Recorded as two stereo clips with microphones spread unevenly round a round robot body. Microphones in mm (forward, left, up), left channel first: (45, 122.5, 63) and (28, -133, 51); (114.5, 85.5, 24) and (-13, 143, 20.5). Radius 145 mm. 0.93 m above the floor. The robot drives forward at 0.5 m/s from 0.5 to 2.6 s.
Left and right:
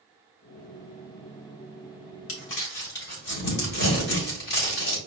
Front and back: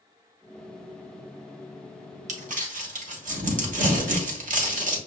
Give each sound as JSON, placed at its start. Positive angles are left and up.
{"t": 2.3, "sound": "crumpling", "azimuth_deg": 130, "distance_m": 0.9}